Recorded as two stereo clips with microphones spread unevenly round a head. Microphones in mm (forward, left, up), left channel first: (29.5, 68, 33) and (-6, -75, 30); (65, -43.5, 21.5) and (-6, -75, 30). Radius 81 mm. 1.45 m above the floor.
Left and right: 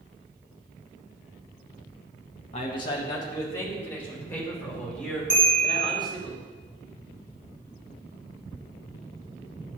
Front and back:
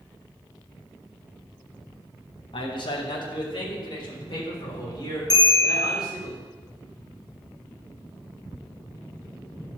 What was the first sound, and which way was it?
A man speaking, 25° left.